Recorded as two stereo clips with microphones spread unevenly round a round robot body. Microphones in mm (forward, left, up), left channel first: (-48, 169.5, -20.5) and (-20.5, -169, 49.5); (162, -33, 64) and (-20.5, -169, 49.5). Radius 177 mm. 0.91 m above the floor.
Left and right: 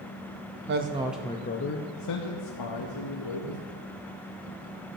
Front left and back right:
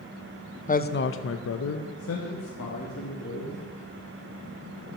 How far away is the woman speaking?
About 0.8 m.